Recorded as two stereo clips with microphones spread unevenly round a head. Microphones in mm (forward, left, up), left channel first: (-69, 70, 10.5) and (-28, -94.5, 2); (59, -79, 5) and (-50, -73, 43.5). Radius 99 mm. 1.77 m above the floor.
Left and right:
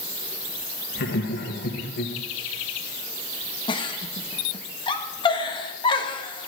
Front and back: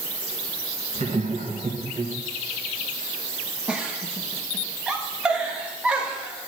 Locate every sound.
0.9 s laughter: 120° left, 1.6 m
3.7 s a giggle: 135° left, 1.2 m